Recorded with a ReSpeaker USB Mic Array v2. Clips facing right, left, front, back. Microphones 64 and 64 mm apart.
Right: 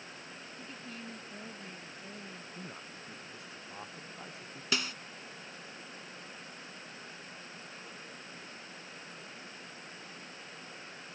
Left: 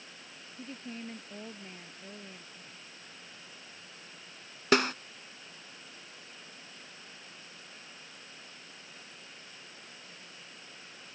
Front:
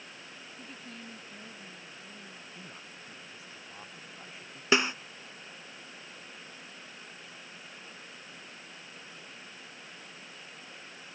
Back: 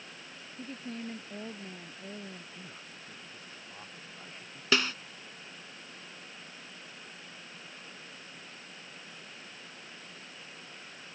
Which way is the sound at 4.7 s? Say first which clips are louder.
Left 10 dB, front 3 dB; 70° left.